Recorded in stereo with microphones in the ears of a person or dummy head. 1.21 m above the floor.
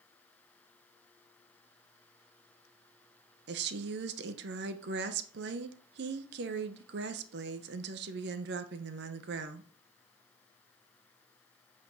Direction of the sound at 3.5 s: 60° right (ahead or behind).